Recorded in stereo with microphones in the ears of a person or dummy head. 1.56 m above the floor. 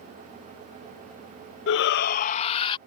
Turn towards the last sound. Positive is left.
turn(degrees=25)  # may be behind; listen again after turning